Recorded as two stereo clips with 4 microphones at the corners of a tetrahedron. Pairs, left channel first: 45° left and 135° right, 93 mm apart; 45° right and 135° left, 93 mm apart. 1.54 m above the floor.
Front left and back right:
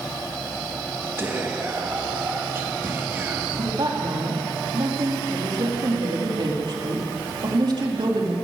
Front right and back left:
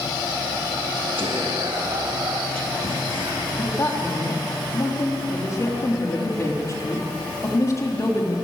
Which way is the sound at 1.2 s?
160° left.